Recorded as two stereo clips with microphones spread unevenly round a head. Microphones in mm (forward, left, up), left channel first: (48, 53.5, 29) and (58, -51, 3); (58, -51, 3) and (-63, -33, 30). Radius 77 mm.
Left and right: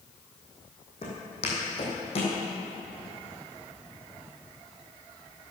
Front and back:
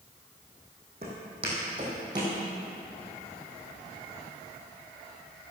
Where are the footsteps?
130° left, 3 m; by 2.4 s 115° left, 3 m.